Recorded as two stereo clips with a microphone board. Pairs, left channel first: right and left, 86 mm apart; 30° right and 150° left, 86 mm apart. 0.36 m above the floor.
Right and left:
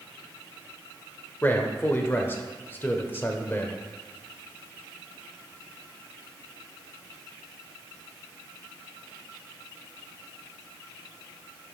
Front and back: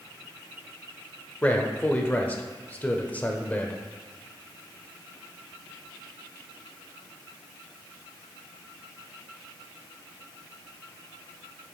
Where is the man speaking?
70° right, 0.9 m.